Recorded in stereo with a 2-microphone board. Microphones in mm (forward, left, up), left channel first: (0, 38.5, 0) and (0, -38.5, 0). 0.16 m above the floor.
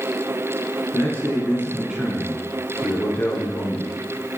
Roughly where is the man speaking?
Right.